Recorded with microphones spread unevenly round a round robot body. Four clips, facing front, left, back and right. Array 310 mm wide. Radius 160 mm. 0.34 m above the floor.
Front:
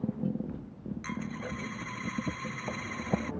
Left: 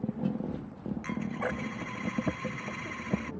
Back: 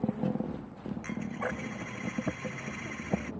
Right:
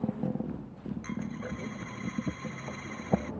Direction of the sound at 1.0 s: 70° left.